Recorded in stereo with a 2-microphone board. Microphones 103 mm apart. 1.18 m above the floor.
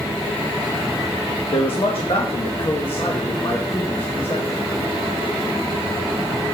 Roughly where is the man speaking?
Left.